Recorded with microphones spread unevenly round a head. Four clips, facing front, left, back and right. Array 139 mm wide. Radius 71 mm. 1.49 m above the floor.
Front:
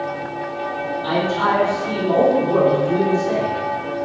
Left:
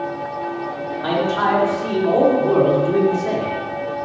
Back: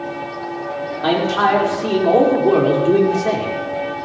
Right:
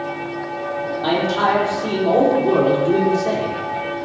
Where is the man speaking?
165° right, 5 m.